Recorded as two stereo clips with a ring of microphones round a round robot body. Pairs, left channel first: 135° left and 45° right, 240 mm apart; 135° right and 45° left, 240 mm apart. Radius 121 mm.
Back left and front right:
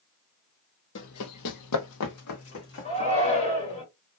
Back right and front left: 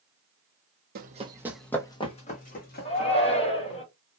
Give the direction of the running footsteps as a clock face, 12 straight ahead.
9 o'clock.